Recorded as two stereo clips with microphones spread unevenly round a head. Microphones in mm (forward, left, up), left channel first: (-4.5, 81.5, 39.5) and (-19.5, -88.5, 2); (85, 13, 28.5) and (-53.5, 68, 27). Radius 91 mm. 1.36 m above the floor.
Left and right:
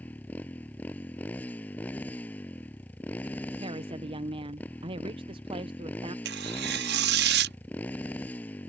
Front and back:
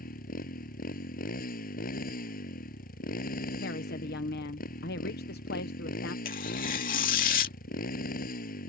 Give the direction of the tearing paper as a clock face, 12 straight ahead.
2 o'clock.